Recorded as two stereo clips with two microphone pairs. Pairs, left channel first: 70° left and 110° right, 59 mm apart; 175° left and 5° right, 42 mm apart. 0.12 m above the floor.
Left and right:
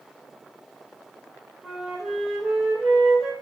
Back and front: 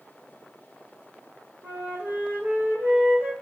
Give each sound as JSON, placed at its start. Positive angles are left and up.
{"t": 1.6, "sound": "a flute", "azimuth_deg": -25, "distance_m": 0.9}